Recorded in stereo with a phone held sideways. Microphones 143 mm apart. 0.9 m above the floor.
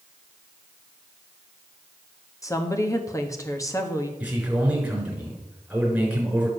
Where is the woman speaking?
20° left (ahead or behind), 1.3 m.